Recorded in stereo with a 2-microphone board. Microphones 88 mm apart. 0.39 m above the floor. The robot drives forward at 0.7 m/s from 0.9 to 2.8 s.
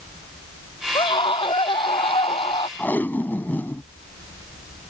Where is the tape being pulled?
20° left (ahead or behind).